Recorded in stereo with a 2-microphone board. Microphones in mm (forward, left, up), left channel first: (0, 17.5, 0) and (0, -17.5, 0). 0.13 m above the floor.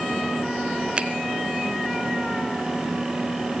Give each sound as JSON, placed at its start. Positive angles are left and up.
{"t": 1.0, "sound": "a finger snap", "side_deg": -30, "distance_m": 1.5}